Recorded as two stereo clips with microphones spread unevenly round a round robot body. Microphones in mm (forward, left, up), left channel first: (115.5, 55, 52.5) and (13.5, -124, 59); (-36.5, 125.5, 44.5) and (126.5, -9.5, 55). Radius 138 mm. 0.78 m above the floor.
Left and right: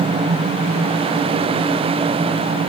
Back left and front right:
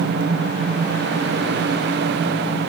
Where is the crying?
No crying in this recording.